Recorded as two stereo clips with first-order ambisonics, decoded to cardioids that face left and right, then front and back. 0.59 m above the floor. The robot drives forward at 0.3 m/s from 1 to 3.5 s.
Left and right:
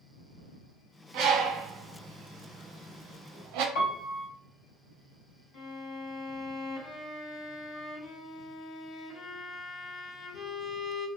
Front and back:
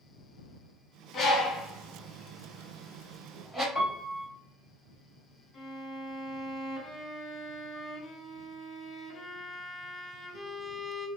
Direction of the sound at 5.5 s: 65° left.